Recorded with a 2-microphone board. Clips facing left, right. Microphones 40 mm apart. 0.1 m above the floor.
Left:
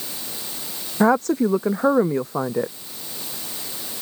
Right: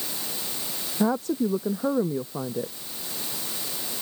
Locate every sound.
1.0 s a woman speaking: 75° left (ahead or behind)